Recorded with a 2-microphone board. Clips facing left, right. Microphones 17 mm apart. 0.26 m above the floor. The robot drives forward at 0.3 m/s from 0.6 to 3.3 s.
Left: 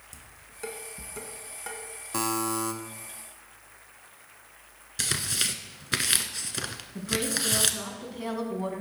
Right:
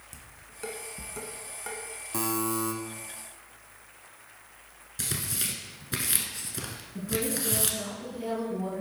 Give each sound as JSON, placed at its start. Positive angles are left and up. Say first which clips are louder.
{"t": 0.1, "sound": "dishes clattering", "louder": "right 1 dB", "side_deg": 0, "distance_m": 1.7}
{"t": 2.1, "sound": "a buzzer", "louder": "left 1 dB", "side_deg": 20, "distance_m": 0.8}
{"t": 5.0, "sound": "tearing paper", "louder": "left 5 dB", "side_deg": 35, "distance_m": 0.8}
{"t": 7.0, "sound": "a woman speaking", "louder": "left 2 dB", "side_deg": 40, "distance_m": 2.5}